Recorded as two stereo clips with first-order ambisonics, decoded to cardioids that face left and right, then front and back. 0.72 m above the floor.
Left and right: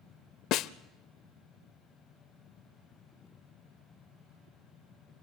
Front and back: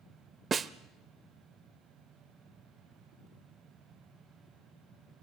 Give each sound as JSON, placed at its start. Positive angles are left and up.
{"t": 0.5, "sound": "a snare drum", "azimuth_deg": 115, "distance_m": 0.5}